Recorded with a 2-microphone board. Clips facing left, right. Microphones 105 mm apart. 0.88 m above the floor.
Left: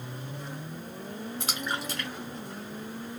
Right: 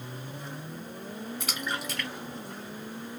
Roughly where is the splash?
Left.